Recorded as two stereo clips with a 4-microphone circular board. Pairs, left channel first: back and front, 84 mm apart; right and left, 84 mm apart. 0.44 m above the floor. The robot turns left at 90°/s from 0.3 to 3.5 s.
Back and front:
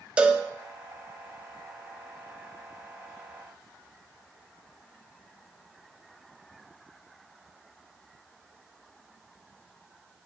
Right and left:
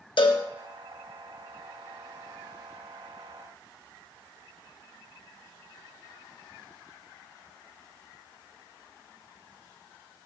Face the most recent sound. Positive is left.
turn(degrees=-5)